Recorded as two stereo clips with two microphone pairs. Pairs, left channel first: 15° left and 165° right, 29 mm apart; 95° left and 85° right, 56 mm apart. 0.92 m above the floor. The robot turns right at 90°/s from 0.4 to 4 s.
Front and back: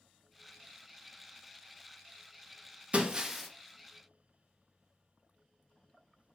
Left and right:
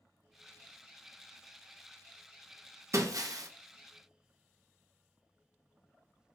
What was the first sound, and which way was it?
Breaking glass, 120° right.